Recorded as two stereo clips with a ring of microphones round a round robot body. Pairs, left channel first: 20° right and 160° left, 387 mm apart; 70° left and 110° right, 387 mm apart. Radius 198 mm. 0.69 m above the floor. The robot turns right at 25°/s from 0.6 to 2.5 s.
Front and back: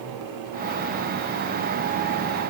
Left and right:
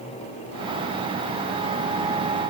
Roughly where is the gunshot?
No gunshot in this recording.